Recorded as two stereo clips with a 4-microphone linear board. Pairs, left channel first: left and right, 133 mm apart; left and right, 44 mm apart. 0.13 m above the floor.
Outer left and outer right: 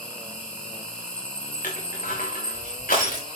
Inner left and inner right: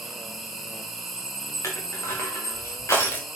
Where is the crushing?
85° left, 6 m.